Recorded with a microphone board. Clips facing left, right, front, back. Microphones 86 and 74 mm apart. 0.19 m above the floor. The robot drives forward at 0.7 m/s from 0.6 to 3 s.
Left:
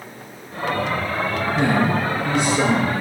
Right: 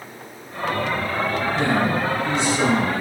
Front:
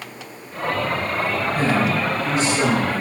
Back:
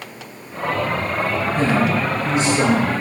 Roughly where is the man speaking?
Ahead left.